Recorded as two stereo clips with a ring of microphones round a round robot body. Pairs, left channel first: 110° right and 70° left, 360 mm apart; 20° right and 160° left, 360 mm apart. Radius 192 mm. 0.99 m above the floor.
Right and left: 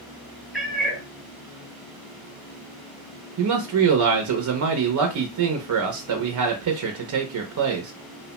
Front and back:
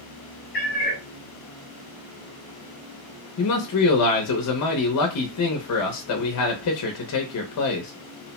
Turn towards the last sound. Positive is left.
turn(degrees=25)